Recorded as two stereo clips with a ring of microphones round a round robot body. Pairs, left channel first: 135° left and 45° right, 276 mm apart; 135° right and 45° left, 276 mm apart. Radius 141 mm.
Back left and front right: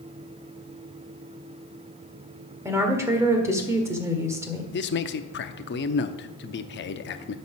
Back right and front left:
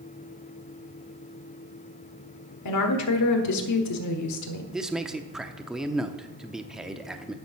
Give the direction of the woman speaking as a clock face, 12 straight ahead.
4 o'clock.